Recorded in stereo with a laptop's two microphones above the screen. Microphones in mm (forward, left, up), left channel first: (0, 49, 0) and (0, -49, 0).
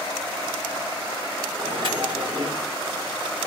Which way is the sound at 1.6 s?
60° right (ahead or behind).